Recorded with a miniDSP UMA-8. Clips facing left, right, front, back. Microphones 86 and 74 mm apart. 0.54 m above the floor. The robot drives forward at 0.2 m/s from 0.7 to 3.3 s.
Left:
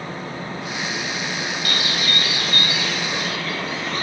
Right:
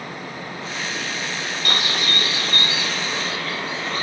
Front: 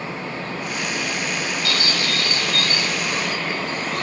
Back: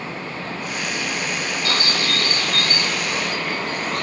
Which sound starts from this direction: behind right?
A bird, at 1.6 s.